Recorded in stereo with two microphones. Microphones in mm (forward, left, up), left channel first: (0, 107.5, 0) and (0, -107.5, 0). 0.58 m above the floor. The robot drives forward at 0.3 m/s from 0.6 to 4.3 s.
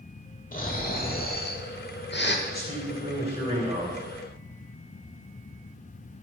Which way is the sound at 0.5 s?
40° left (ahead or behind).